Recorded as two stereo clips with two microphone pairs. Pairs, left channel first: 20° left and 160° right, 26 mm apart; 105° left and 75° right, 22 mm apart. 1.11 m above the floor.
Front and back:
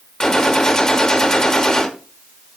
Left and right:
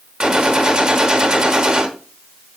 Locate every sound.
0.2 s a gunshot: 35° right, 1.0 m